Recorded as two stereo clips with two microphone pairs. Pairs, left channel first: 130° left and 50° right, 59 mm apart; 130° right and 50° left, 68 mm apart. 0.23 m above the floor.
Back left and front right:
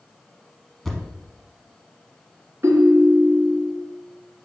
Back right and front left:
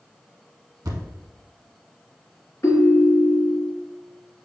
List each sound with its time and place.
0.8 s a thud: 40° left, 0.7 m
2.6 s a ringtone: 90° right, 1.2 m